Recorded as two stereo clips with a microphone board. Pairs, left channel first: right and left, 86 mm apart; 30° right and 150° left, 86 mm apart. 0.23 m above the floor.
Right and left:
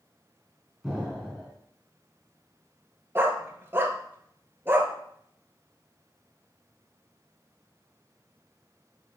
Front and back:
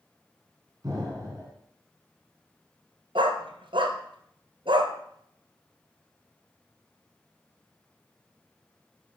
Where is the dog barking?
155° left, 0.9 m.